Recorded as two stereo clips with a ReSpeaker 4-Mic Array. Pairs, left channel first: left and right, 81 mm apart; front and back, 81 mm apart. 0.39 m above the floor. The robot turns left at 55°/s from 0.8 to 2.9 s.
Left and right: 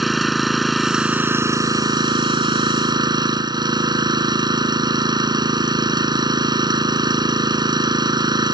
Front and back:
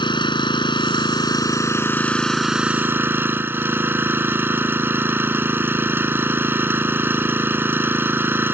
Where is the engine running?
Straight ahead; by 8.5 s 115° right.